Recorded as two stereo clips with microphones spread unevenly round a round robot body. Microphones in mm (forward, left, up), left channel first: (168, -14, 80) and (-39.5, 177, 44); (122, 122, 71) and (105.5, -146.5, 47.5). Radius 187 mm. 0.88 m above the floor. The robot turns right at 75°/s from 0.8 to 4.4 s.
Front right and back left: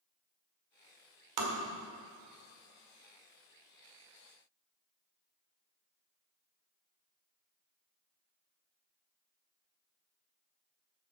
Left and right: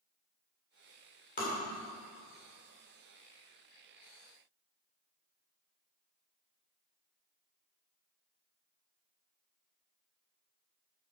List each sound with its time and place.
1.4 s tapping: 155° left, 1.7 m; by 1.6 s 170° left, 1.7 m